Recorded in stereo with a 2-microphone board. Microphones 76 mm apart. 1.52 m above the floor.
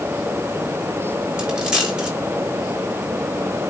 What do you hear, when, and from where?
1.4 s a dropped coin: 15° right (ahead or behind), 3.5 m